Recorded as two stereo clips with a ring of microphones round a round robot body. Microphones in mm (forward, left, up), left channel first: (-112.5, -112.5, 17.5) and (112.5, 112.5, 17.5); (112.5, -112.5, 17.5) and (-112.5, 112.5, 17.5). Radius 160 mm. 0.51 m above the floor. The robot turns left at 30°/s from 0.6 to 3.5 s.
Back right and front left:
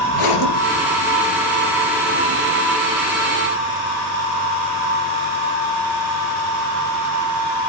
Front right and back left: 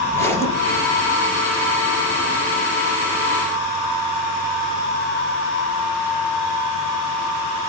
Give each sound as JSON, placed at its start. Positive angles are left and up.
{"t": 0.1, "sound": "a zipper", "azimuth_deg": -125, "distance_m": 3.0}